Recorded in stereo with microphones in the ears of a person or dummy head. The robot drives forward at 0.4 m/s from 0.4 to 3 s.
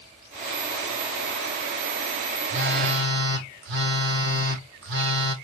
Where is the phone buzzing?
75° right (ahead or behind), 1.0 m; by 5.3 s 85° right, 1.0 m.